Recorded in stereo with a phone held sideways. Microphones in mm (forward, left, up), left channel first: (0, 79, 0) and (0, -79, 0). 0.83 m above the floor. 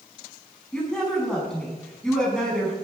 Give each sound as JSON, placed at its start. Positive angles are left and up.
{"t": 0.7, "sound": "a woman speaking", "side_deg": 5, "distance_m": 6.0}